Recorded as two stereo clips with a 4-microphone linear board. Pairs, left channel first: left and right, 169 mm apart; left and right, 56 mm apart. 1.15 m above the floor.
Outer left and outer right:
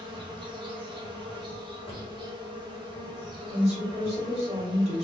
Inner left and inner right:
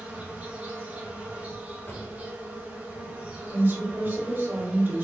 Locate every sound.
0.0 s an insect: 30° right (ahead or behind), 1.0 m
1.9 s a drawer: 30° left (ahead or behind), 1.0 m
3.5 s a woman speaking: 40° right (ahead or behind), 1.7 m